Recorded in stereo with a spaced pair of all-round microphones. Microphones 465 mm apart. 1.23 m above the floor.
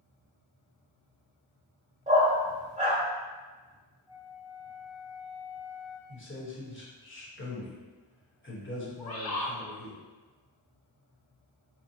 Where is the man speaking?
25° left (ahead or behind), 1.2 m.